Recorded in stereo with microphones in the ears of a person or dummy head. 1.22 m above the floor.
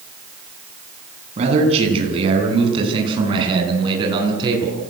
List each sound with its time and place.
1.4 s a man speaking: 35° right (ahead or behind), 9.5 m; by 4.8 s 25° right (ahead or behind), 11 m